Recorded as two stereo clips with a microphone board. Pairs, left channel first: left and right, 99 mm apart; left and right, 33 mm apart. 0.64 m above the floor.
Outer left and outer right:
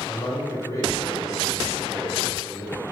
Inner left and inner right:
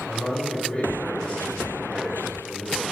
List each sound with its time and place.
0.1 s a man speaking: 35° left (ahead or behind), 3 m